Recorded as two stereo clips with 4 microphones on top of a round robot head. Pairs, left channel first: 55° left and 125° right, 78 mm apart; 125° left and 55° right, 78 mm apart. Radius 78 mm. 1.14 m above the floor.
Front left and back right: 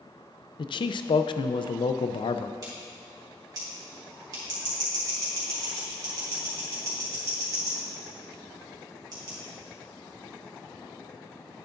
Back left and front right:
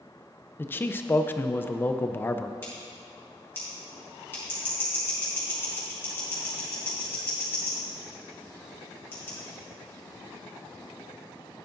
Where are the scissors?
170° right, 2.5 m.